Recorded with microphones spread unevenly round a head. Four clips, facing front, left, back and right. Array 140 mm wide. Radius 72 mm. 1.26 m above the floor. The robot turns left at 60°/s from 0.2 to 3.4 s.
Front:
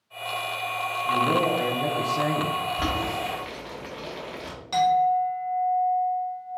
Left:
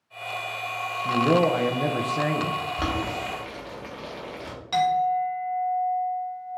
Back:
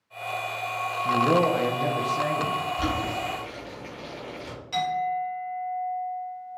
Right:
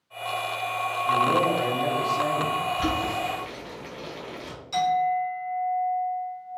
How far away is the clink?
About 1.6 m.